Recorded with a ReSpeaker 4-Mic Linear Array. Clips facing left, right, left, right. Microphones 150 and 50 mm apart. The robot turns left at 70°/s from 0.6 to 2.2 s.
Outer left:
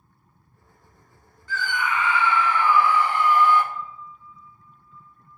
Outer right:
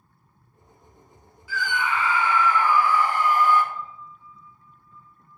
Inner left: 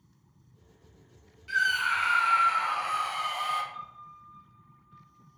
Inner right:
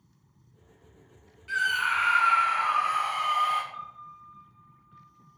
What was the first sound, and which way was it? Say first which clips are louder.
A scream: even, even; 10° right.